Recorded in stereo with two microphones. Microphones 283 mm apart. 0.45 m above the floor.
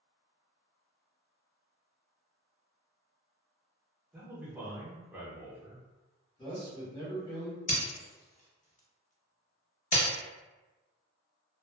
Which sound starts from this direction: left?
Breaking glass, at 7.7 s.